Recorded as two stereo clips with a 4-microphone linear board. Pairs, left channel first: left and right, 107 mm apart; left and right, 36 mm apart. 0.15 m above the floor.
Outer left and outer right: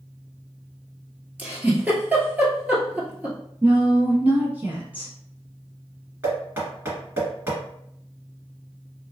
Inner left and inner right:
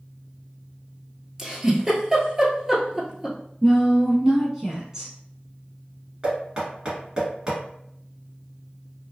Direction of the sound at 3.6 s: 15° right (ahead or behind).